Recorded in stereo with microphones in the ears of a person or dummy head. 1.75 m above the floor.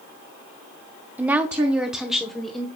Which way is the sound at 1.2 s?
10° right (ahead or behind).